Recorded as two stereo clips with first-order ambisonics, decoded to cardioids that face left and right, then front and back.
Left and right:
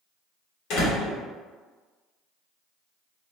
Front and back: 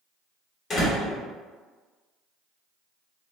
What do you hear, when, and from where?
0.7 s a door slam: 70° left, 1.1 m